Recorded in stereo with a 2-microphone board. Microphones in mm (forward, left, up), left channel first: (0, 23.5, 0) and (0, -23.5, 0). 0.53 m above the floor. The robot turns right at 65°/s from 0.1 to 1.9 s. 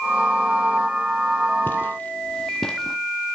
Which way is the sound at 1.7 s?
45° left (ahead or behind).